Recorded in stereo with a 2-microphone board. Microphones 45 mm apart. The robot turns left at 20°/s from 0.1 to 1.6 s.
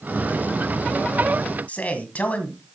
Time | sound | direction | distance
1.7 | a man speaking | 35° left (ahead or behind) | 2.0 m